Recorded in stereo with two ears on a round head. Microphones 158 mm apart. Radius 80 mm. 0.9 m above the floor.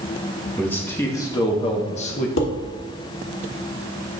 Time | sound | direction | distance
0.6 | a man speaking | 10° left (ahead or behind) | 1.5 m
2.4 | dishes clattering | 85° left | 1.2 m